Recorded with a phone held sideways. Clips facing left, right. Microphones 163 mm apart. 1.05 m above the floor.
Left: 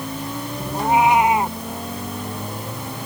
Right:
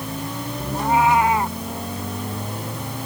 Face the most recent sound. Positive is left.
turn(degrees=20)  # may be behind; listen again after turning